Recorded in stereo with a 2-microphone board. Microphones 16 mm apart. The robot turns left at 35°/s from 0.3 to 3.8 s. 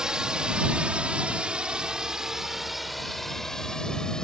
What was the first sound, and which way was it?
A drone, 35° right (ahead or behind).